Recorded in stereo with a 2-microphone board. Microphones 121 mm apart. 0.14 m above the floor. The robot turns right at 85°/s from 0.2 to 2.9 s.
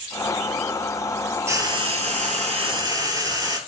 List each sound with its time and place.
1.5 s frying: 155° right, 0.6 m; by 3.6 s 35° right, 0.6 m